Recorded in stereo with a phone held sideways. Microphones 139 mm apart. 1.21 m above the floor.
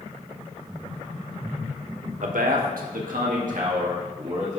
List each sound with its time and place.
2.2 s a man speaking: 65° right (ahead or behind), 0.9 m; by 4.6 s 55° right (ahead or behind), 2.5 m